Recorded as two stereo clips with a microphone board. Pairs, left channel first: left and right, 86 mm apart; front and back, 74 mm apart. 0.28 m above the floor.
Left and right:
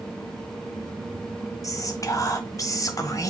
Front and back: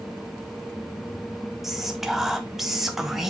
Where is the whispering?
95° left, 1.4 m.